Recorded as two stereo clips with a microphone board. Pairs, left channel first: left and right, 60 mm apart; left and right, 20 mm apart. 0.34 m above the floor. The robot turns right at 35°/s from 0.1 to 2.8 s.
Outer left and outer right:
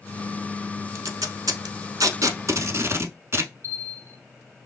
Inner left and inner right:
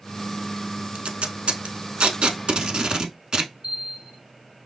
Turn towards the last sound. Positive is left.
turn(degrees=-45)  # may be behind; listen again after turning